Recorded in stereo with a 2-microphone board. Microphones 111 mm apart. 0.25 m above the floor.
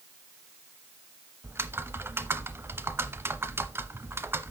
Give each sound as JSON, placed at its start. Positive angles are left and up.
{"t": 1.4, "sound": "typing on a keyboard", "side_deg": -25, "distance_m": 0.8}